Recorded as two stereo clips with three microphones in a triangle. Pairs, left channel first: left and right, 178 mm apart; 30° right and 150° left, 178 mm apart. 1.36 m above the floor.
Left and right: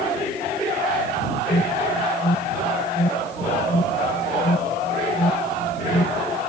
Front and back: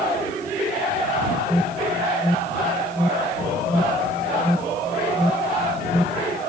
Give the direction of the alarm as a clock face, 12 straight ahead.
10 o'clock.